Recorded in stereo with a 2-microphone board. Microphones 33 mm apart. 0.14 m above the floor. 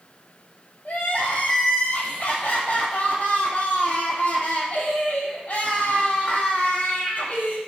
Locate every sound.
0.8 s crying: 55° left (ahead or behind), 0.8 m